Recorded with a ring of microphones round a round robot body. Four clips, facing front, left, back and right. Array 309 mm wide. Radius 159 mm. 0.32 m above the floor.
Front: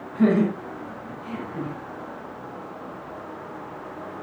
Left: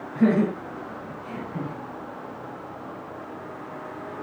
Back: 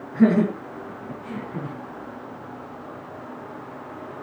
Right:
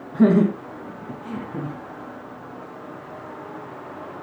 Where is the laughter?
95° right, 4 m; by 1.8 s 105° right, 4.5 m.